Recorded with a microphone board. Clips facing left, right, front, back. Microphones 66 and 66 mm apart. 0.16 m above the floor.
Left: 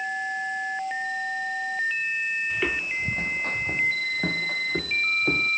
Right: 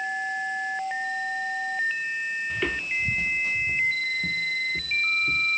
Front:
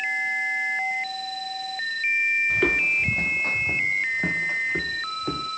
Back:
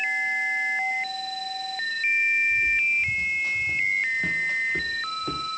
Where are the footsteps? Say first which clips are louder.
Left 1 dB, front 1 dB; straight ahead; by 5.5 s 80° left.